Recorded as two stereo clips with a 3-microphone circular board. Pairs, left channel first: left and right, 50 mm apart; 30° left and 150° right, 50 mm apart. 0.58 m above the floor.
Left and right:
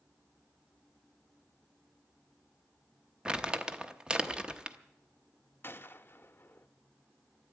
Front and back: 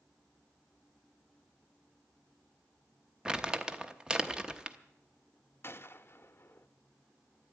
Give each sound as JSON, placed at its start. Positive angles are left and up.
{"t": 3.2, "sound": "crumpling", "azimuth_deg": -115, "distance_m": 0.8}
{"t": 5.6, "sound": "a gunshot", "azimuth_deg": 55, "distance_m": 0.6}